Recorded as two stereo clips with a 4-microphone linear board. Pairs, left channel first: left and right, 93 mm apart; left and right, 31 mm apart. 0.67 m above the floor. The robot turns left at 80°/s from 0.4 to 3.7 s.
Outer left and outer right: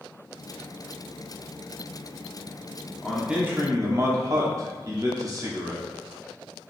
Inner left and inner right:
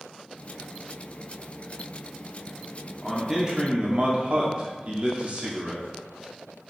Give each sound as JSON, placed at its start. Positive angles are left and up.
{"t": 3.0, "sound": "a man speaking", "azimuth_deg": 10, "distance_m": 1.2}